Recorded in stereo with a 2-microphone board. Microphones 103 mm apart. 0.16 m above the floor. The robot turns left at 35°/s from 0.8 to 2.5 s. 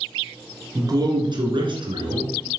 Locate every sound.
0.8 s a man speaking: 50° right, 1.7 m; by 2.6 s 110° right, 1.7 m